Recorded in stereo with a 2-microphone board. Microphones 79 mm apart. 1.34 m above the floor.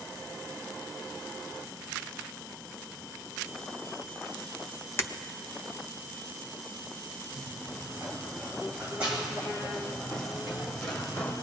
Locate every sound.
5.0 s breaking glass: 35° left (ahead or behind), 0.6 m
7.3 s running footsteps: 30° right (ahead or behind), 4 m; by 11.3 s 15° left (ahead or behind), 2.5 m